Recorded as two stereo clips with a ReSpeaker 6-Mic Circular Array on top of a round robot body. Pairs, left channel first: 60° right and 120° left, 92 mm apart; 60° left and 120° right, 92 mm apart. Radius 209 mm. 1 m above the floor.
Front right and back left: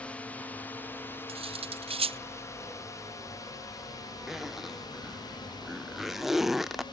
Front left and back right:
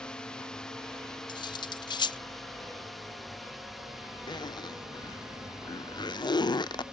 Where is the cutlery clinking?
100° left.